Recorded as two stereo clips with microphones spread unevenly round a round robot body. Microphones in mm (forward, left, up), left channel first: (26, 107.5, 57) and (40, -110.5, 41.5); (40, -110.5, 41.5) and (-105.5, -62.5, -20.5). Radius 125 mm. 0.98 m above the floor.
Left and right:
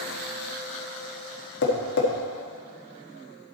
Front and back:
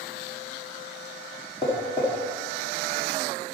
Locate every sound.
1.6 s tapping: 55° left, 1.3 m